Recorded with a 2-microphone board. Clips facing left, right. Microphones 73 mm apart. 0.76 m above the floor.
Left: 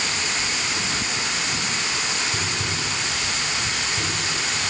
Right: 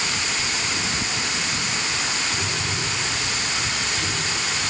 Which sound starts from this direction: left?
Tapping, at 2.3 s.